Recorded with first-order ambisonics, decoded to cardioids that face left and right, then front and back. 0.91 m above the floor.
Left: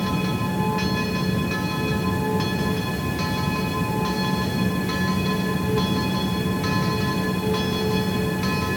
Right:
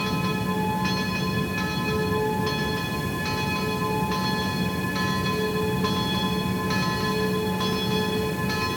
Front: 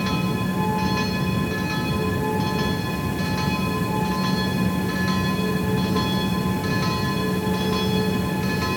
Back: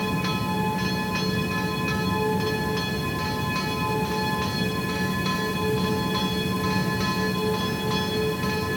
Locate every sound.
Only background noise.